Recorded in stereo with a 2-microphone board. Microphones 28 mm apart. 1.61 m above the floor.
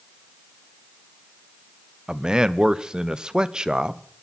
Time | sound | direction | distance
2.1 | a man speaking | 25° right (ahead or behind) | 0.8 m